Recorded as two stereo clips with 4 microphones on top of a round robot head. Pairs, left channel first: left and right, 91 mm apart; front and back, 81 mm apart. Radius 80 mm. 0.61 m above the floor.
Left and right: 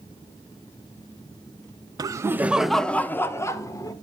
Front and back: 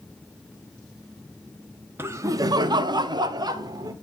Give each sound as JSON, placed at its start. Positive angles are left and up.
{"t": 2.0, "sound": "laughter", "azimuth_deg": -125, "distance_m": 0.9}